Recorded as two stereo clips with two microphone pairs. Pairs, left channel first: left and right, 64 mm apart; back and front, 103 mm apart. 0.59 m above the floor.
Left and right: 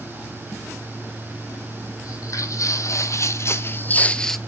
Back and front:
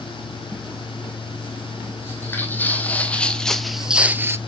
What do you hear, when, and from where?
2.0 s footsteps: 115° left, 1.6 m; by 4.4 s 15° left, 0.6 m